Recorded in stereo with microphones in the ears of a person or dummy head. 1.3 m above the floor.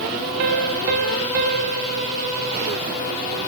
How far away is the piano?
About 2.0 m.